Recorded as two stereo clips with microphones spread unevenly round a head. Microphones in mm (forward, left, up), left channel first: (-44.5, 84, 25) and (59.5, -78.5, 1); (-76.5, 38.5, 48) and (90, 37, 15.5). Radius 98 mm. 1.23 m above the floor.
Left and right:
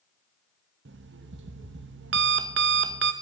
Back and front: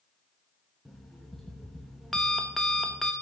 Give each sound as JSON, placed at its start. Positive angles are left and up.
{"t": 0.8, "sound": "an alarm clock", "azimuth_deg": -95, "distance_m": 0.9}